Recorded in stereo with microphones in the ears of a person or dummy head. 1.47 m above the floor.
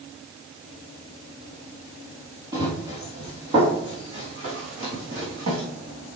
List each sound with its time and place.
2.5 s running footsteps: 20° right (ahead or behind), 3 m; by 5.6 s 45° right (ahead or behind), 4.5 m